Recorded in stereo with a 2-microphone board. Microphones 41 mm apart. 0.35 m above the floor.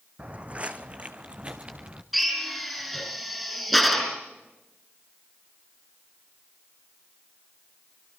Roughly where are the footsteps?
Right.